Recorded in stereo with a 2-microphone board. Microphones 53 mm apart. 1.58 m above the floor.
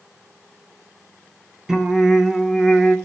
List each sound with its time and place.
1.7 s singing: 10° right (ahead or behind), 1.7 m